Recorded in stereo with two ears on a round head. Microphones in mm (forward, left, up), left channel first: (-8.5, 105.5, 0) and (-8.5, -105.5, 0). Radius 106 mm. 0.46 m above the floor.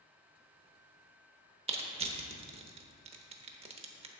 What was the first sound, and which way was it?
Crushing, 25° right (ahead or behind).